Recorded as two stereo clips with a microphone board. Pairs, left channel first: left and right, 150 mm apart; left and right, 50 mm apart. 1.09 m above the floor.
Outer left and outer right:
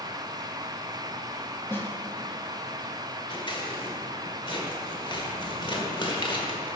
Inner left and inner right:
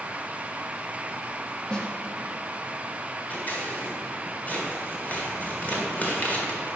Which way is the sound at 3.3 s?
35° left (ahead or behind).